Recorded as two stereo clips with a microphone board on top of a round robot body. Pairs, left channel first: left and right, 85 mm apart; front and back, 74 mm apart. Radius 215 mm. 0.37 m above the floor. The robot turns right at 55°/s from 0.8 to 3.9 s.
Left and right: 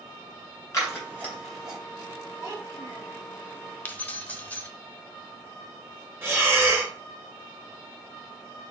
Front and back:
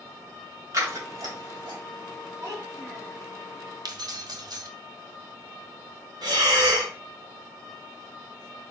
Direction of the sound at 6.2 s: 155° right.